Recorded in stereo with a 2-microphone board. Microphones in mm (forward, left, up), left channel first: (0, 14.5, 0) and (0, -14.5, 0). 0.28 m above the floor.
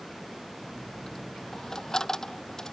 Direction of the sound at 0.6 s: 15° left (ahead or behind).